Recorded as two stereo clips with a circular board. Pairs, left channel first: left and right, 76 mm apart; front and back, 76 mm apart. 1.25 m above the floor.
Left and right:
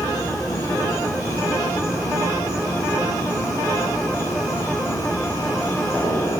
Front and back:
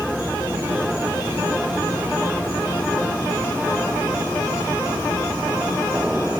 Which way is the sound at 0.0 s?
120° left.